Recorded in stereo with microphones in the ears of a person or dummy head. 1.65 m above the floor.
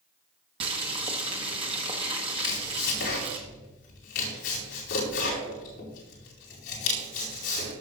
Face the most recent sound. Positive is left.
turn(degrees=65)  # may be behind; listen again after turning